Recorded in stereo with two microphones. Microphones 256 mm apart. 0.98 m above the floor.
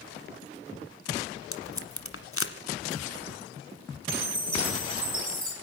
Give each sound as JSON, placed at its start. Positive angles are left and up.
{"t": 1.5, "sound": "tape being pulled", "side_deg": 60, "distance_m": 1.5}
{"t": 4.1, "sound": "a chime", "side_deg": -55, "distance_m": 4.0}